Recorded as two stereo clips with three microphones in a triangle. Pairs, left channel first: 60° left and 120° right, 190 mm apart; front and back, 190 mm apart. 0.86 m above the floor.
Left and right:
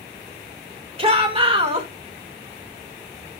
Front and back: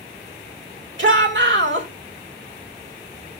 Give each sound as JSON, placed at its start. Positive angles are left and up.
{"t": 1.0, "sound": "a shout", "azimuth_deg": -175, "distance_m": 2.5}